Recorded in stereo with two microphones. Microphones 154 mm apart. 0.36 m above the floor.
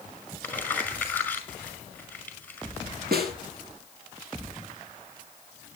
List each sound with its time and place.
0.4 s crumpling: 10° left (ahead or behind), 5.5 m
3.1 s a snare drum: 85° right, 2.5 m